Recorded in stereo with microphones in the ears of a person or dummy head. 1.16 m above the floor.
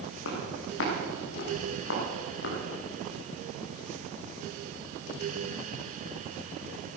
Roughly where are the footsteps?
Left.